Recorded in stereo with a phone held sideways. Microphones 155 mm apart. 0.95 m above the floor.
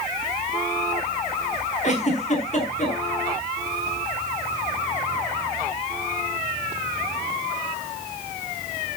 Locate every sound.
1.8 s a giggle: 50° left (ahead or behind), 5.5 m